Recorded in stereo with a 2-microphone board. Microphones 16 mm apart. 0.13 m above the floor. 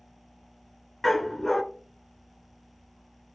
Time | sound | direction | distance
1.0 | a dog barking | 20° left (ahead or behind) | 0.5 m